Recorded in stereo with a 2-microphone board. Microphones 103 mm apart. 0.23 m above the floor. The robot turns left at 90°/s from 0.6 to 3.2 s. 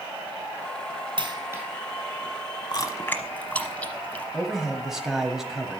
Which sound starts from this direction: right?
A dropped coin, at 1.2 s.